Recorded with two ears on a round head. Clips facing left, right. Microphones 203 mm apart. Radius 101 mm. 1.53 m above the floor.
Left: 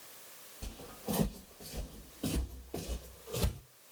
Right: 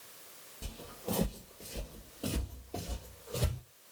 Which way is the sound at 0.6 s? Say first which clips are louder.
Even; 25° right (ahead or behind).